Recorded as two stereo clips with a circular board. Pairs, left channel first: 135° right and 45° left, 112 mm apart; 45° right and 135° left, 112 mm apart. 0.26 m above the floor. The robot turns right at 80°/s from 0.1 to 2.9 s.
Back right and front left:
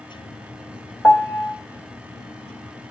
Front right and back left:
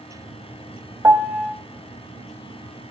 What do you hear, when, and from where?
1.0 s a piano: 175° left, 1.3 m; by 1.6 s 145° right, 1.3 m